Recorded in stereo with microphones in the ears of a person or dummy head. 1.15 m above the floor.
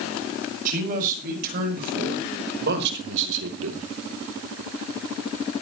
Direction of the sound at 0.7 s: 45° right (ahead or behind).